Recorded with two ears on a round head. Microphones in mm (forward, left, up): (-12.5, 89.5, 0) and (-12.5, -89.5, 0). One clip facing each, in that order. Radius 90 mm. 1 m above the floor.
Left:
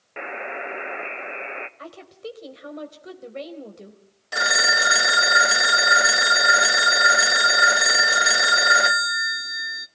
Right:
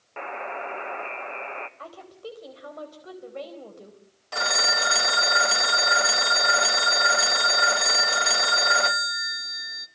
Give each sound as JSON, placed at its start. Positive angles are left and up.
{"t": 0.2, "sound": "a buzzer", "side_deg": 25, "distance_m": 1.0}
{"t": 1.8, "sound": "a woman speaking", "side_deg": 25, "distance_m": 4.0}
{"t": 4.3, "sound": "a phone ringing", "side_deg": 15, "distance_m": 0.6}